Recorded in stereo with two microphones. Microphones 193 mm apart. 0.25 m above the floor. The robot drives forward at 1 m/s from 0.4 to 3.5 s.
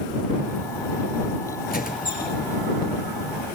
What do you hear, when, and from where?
1.7 s a squeak: 50° left (ahead or behind), 2 m; by 2.3 s 40° left (ahead or behind), 2.5 m